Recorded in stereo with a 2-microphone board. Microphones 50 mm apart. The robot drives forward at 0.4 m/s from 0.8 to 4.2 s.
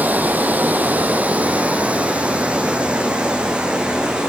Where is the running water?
35° right (ahead or behind), 1.4 m; by 4.3 s 15° right (ahead or behind), 2.5 m.